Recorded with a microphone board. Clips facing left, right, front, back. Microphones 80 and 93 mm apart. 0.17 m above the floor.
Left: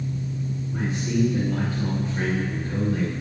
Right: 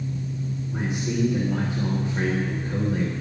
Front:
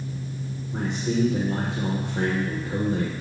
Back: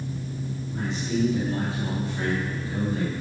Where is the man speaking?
20° right, 7 m.